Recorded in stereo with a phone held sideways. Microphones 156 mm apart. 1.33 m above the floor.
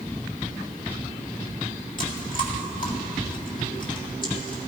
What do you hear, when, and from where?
2.0 s chewing: 65° left (ahead or behind), 2.5 m